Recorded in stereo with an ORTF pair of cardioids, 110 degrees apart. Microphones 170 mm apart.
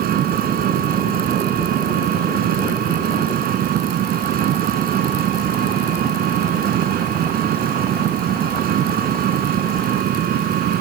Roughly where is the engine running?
Ahead right.